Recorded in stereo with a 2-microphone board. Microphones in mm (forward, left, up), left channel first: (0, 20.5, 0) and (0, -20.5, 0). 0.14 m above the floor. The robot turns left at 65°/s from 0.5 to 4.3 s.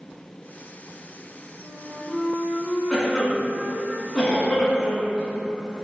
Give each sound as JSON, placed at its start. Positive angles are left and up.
{"t": 1.6, "sound": "a flute", "side_deg": -10, "distance_m": 0.7}
{"t": 2.9, "sound": "a cough", "side_deg": 10, "distance_m": 1.0}